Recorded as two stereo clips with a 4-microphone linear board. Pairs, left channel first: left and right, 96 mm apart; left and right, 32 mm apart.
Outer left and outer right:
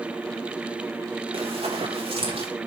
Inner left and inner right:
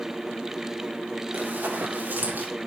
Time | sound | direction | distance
1.3 | running footsteps | 75° right (ahead or behind) | 4 m